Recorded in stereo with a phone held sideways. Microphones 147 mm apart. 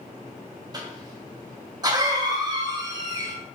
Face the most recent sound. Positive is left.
turn(degrees=-30)  # may be behind; listen again after turning